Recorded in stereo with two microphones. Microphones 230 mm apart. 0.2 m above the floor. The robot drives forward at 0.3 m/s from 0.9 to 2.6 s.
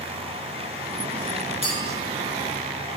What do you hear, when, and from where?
1.6 s a clink: 60° left (ahead or behind), 3 m